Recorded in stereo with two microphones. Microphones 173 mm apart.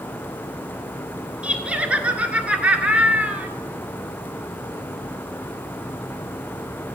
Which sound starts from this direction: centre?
Laughter, at 1.4 s.